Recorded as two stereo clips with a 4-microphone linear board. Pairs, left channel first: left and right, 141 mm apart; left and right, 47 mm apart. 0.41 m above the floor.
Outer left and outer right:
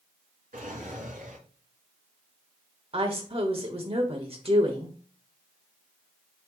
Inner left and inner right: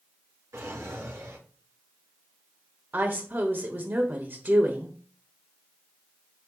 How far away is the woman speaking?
About 1.4 m.